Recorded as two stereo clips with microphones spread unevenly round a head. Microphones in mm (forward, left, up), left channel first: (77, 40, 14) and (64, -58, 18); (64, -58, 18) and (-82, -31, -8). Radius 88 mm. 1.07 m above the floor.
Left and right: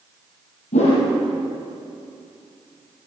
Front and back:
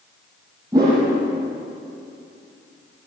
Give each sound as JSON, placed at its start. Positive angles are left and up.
{"t": 0.7, "sound": "a whoosh", "azimuth_deg": 95, "distance_m": 8.0}